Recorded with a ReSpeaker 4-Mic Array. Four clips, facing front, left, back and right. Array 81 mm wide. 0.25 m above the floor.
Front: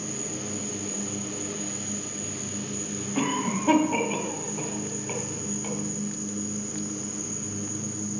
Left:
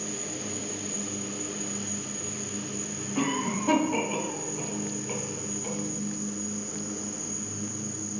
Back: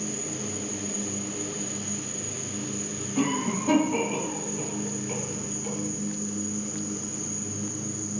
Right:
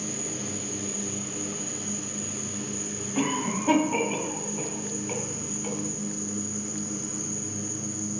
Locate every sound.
0.0 s an insect: 35° left, 1.2 m
3.1 s a cough: 20° right, 1.9 m